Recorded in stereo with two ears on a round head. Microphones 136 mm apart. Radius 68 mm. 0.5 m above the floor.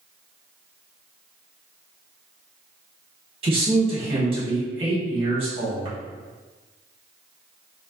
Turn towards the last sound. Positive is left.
turn(degrees=-40)  # may be behind; listen again after turning